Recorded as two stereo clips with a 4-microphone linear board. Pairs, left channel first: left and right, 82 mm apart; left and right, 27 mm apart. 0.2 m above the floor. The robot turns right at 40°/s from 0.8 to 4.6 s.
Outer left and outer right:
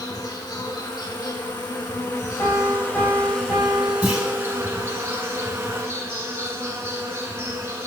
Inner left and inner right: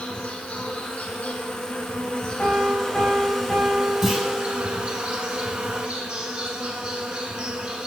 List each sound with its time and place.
0.0 s an insect: 70° left, 1.0 m; by 7.9 s 140° right, 1.0 m
2.4 s a piano: 60° left, 3.5 m; by 5.0 s 150° left, 3.5 m
4.0 s a clunk: 15° right (ahead or behind), 1.9 m; by 4.2 s 25° right (ahead or behind), 1.9 m